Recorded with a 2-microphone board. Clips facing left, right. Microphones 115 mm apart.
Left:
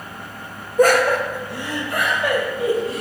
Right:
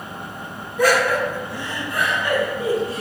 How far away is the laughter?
About 1.0 m.